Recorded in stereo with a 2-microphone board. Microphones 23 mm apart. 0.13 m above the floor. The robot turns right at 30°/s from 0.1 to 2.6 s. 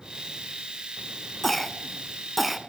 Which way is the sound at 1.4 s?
10° left (ahead or behind).